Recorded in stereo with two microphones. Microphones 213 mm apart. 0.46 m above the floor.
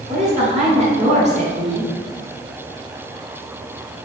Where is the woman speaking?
30° right (ahead or behind), 1.6 m.